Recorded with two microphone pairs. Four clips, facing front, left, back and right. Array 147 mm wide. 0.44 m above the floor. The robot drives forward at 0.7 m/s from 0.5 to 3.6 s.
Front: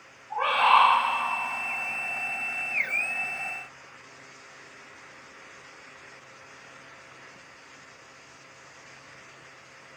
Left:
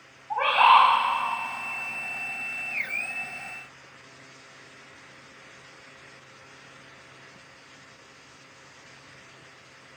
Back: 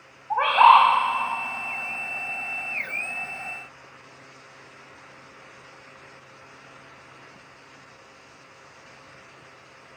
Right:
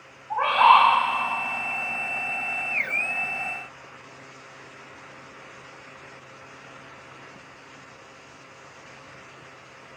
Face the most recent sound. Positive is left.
turn(degrees=175)